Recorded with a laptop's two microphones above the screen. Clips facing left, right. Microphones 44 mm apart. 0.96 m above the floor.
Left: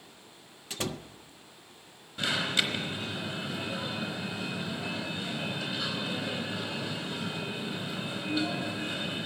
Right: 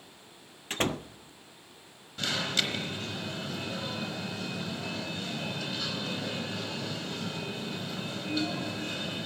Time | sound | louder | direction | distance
0.7 | a door slam | right 5 dB | 40° right (ahead or behind) | 0.5 m
2.2 | an alarm | left 2 dB | 10° left (ahead or behind) | 3.5 m